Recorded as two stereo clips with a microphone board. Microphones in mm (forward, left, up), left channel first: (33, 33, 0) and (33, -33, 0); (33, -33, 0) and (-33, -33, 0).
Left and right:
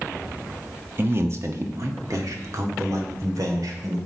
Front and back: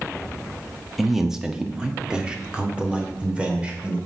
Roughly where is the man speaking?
Right.